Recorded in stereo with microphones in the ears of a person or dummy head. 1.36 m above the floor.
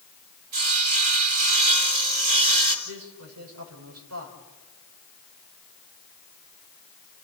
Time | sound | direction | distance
0.5 | sawing | 45° right (ahead or behind) | 3 m
2.9 | a man speaking | 90° right | 6 m